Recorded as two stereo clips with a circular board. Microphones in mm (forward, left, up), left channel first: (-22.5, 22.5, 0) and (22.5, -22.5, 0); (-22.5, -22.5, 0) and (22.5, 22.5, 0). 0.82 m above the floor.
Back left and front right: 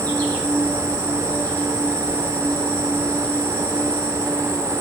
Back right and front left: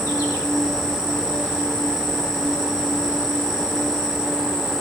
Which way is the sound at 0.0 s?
160° right.